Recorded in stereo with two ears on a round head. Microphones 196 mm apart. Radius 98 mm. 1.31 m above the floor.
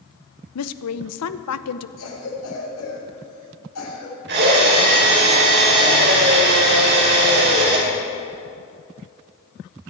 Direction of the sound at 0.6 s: 80° left.